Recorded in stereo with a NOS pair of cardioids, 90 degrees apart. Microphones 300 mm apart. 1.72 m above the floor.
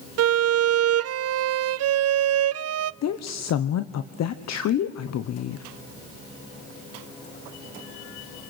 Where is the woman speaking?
60° left, 1.2 m.